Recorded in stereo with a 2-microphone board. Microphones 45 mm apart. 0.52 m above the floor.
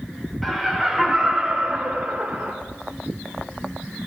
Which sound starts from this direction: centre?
Laughter, at 0.4 s.